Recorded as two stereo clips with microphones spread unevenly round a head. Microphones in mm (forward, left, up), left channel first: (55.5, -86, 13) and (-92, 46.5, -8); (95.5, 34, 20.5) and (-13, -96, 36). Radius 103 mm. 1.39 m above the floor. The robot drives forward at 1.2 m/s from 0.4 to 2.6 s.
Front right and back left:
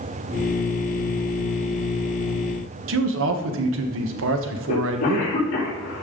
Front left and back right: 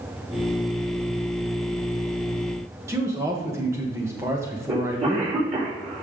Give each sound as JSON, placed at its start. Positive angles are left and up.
{"t": 2.9, "sound": "a man speaking", "azimuth_deg": 155, "distance_m": 1.2}
{"t": 4.7, "sound": "a cough", "azimuth_deg": -85, "distance_m": 4.0}